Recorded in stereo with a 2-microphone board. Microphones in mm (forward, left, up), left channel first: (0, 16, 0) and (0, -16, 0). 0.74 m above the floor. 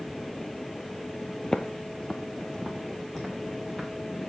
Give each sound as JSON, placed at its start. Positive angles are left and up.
{"t": 1.4, "sound": "footsteps", "side_deg": 25, "distance_m": 0.8}